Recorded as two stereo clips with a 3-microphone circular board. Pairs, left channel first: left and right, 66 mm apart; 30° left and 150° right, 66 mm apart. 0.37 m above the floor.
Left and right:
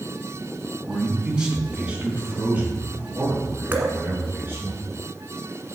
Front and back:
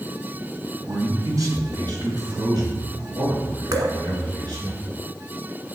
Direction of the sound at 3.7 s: 150° right.